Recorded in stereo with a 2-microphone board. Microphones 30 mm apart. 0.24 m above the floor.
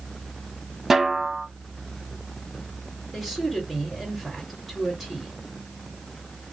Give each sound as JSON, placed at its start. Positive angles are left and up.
{"t": 0.9, "sound": "a snare drum", "side_deg": -10, "distance_m": 1.0}
{"t": 3.1, "sound": "a woman speaking", "side_deg": -5, "distance_m": 3.5}